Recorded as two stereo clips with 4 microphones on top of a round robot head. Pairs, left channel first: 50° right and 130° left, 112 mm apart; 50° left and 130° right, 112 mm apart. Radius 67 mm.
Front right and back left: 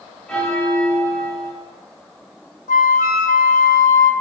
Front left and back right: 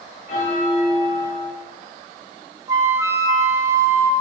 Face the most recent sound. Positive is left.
turn(degrees=-65)